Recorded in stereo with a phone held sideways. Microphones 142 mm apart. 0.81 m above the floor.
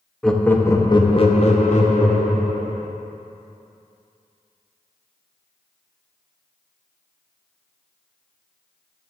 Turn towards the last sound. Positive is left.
turn(degrees=70)  # may be behind; listen again after turning